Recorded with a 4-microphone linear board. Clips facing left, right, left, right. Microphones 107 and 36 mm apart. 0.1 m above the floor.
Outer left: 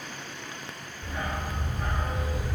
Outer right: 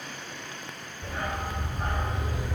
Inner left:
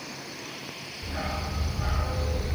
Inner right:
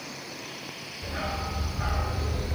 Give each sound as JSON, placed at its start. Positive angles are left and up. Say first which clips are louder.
{"t": 1.0, "sound": "a dog barking", "louder": "outer right 1 dB, inner right 1 dB", "side_deg": -60, "distance_m": 3.5}